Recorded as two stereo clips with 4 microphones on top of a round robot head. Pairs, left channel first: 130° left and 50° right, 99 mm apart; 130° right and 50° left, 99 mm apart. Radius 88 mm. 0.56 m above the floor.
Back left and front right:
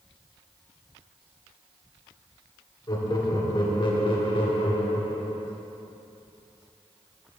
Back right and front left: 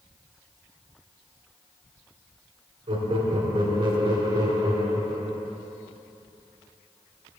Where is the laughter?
80° left, 3 m; by 5.5 s 110° left, 3 m.